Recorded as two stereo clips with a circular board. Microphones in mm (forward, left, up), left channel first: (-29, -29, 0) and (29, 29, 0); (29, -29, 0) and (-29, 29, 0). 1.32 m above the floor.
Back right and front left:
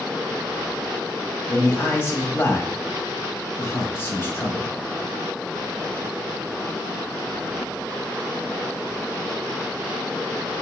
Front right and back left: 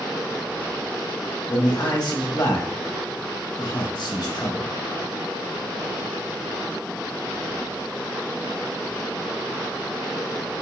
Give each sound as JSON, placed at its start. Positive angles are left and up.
{"t": 1.5, "sound": "a man speaking", "azimuth_deg": -75, "distance_m": 1.3}